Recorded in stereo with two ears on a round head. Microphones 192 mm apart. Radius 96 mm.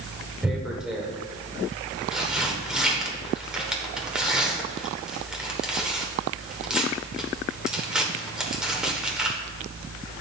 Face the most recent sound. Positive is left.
turn(degrees=-5)  # may be behind; listen again after turning